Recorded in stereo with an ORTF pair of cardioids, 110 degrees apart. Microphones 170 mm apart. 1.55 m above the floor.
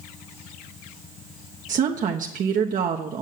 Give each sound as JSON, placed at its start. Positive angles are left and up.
{"t": 1.7, "sound": "a woman speaking", "azimuth_deg": -50, "distance_m": 1.0}